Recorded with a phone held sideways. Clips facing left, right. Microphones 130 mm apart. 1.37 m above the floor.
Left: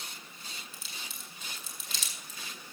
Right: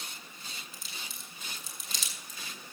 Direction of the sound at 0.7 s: Centre (ahead or behind).